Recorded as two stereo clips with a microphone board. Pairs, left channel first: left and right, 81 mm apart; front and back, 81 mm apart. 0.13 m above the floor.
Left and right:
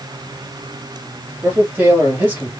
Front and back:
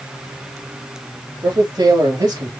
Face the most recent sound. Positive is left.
turn(degrees=-155)